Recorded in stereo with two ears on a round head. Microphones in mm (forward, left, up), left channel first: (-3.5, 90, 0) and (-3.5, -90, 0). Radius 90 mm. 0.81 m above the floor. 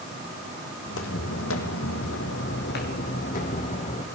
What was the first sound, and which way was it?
Footsteps, 70° left (ahead or behind).